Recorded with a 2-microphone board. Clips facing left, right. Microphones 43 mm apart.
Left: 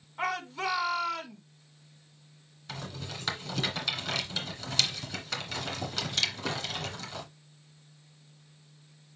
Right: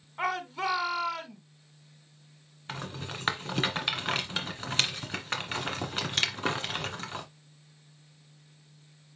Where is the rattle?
35° right (ahead or behind), 1.9 m.